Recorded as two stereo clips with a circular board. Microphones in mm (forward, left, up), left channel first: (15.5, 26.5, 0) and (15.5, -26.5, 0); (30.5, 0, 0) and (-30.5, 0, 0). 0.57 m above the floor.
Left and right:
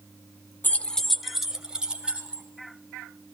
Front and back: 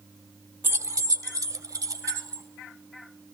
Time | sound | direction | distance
0.6 | keys jangling | 135° left | 0.7 m